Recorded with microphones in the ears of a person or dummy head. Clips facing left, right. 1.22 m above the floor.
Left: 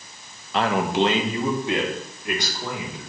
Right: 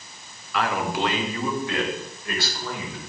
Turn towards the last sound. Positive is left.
turn(degrees=20)  # may be behind; listen again after turning